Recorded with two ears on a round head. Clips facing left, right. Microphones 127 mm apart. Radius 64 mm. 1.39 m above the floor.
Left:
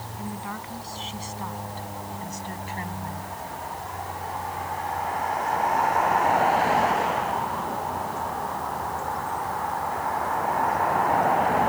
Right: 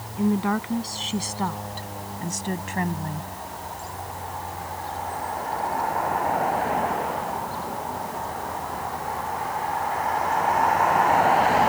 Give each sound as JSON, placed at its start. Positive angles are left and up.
{"t": 0.2, "sound": "a woman speaking", "side_deg": -60}